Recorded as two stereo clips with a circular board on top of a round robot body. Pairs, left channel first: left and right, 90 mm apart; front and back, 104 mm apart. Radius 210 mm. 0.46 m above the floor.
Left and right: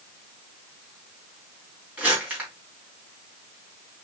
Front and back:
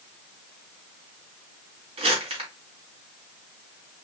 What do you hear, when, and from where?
2.0 s crumpling: 155° right, 2.5 m